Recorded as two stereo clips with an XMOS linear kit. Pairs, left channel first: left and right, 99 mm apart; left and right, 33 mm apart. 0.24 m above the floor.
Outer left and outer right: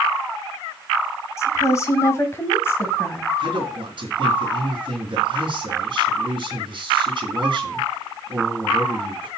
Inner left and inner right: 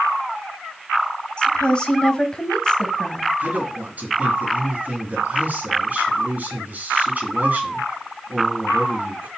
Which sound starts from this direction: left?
A woman speaking, at 1.4 s.